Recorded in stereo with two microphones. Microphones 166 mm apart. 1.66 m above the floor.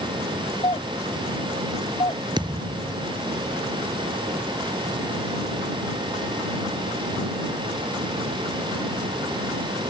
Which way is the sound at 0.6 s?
30° left (ahead or behind).